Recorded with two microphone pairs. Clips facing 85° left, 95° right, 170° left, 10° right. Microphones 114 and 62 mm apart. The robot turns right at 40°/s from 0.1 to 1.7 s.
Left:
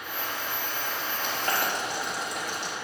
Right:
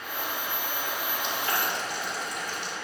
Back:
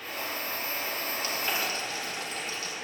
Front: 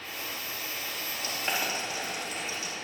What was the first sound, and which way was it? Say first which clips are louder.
Boiling: left 2 dB, front 1 dB; 45° left.